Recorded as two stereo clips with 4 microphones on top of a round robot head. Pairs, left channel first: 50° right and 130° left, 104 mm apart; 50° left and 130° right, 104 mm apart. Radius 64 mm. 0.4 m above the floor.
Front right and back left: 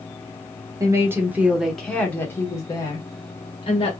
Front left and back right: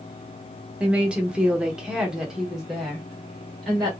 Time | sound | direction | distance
0.8 | a woman speaking | 160° left | 1.1 m